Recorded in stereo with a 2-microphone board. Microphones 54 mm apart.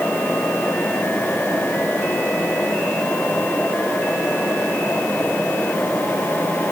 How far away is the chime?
I don't hear a chime.